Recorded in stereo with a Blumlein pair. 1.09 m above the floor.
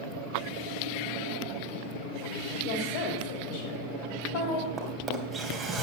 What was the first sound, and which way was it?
A woman speaking, 45° left.